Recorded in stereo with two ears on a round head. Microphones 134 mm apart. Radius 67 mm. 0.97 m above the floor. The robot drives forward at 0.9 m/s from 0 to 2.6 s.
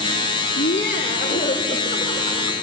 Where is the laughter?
50° left (ahead or behind), 1.4 m; by 2.5 s 25° left (ahead or behind), 2.5 m.